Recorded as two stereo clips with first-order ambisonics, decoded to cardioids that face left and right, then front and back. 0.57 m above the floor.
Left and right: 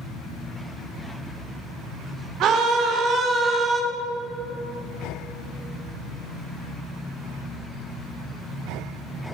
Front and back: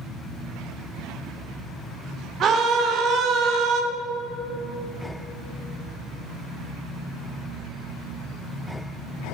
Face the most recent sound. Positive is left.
turn(degrees=-165)